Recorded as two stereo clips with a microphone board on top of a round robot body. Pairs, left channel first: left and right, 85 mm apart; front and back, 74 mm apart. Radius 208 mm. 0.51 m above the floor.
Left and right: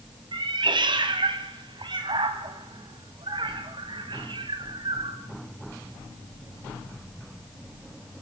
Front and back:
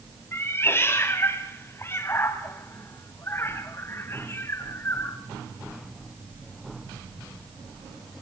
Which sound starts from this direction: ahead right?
A cat meowing, at 0.3 s.